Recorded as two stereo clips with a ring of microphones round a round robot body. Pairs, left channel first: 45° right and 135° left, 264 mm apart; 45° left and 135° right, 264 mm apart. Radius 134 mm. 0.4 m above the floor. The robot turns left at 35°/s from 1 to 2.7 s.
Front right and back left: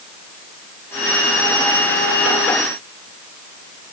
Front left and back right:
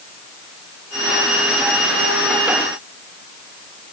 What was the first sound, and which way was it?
Only background noise.